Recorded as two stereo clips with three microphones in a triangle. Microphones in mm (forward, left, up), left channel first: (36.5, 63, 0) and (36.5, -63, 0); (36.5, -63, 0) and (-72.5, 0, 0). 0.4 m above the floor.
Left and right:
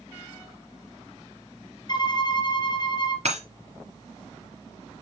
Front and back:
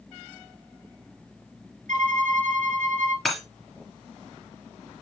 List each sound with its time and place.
1.9 s a violin: 145° left, 2.5 m
3.2 s breaking glass: 120° right, 3 m